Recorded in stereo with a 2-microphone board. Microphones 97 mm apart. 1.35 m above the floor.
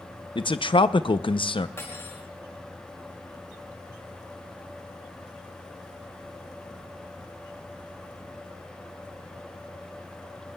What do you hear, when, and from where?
0.3 s a man speaking: 65° left (ahead or behind), 0.5 m
1.8 s cutlery clinking: 30° left (ahead or behind), 3.5 m